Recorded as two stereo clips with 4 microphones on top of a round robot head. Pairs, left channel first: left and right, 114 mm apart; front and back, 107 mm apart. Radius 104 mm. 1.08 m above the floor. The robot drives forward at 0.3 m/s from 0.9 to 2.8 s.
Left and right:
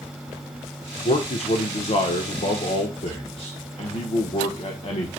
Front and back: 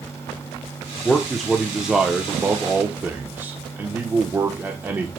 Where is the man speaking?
85° left, 1.1 m; by 5.1 s 110° left, 1.2 m.